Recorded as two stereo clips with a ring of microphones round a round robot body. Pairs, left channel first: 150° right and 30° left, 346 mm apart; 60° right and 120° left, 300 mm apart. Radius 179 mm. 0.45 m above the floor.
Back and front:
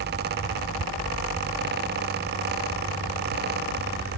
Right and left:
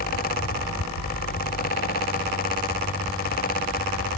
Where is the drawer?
No drawer in this recording.